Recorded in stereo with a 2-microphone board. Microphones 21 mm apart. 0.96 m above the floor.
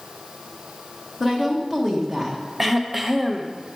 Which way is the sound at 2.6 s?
10° right (ahead or behind).